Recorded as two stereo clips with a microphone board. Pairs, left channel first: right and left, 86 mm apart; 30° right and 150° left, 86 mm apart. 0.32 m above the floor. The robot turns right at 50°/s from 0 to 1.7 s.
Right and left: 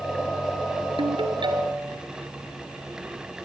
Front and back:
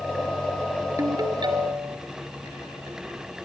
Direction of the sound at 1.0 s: 95° left.